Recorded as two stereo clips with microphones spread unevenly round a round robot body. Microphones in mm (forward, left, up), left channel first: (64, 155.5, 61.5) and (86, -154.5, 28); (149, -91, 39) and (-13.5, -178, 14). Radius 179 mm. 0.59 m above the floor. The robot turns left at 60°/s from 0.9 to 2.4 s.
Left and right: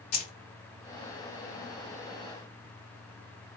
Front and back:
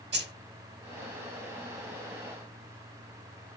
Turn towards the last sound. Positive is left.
turn(degrees=55)